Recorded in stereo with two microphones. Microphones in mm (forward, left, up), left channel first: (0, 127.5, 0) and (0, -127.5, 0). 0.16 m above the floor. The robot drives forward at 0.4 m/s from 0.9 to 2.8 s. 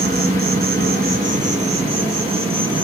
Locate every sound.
0.0 s an insect: 35° right (ahead or behind), 0.7 m; by 2.9 s 20° right (ahead or behind), 1.3 m